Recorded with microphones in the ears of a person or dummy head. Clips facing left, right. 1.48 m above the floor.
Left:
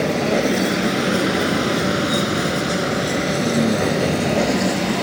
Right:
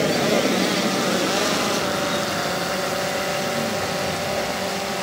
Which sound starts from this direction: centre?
A vehicle, at 0.0 s.